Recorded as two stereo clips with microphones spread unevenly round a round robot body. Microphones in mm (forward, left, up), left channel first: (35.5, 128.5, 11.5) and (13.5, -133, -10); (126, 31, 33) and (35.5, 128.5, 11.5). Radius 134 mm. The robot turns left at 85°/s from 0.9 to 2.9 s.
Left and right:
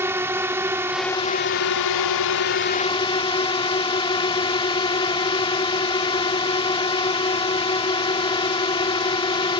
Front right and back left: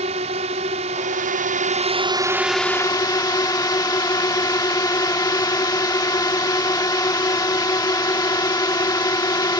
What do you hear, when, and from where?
0.0 s a drone: 175° right; by 9.6 s 15° left